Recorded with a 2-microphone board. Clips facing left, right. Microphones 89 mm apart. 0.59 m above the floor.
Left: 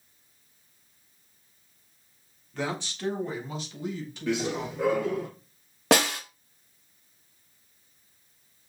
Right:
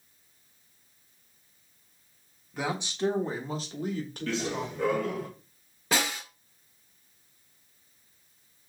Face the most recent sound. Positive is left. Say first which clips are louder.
# left 7 dB
turn(degrees=85)